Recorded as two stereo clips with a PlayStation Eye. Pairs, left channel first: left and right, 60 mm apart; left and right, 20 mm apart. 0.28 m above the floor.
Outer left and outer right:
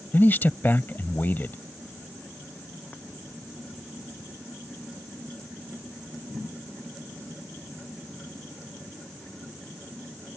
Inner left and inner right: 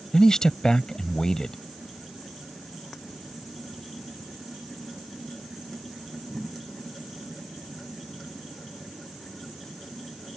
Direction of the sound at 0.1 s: 35° left (ahead or behind).